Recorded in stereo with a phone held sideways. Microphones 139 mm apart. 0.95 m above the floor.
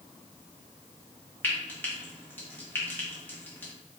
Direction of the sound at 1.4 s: 15° left (ahead or behind).